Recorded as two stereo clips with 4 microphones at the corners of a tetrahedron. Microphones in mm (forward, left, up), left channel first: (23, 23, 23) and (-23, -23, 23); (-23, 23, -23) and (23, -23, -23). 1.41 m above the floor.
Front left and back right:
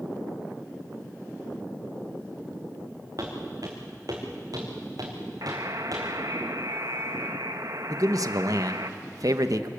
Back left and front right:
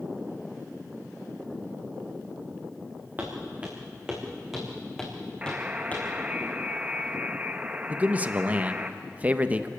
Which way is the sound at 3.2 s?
105° right.